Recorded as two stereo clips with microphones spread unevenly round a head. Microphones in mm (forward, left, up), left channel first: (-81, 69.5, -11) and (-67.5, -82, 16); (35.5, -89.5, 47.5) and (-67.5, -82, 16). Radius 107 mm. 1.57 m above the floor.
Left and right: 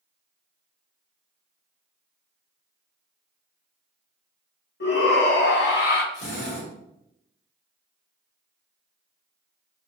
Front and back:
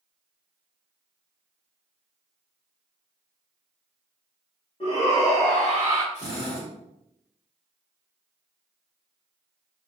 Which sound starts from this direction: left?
A drill, at 6.1 s.